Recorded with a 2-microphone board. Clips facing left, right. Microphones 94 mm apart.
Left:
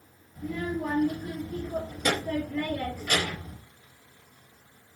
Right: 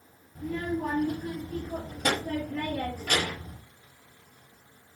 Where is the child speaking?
45° right (ahead or behind), 1.5 m.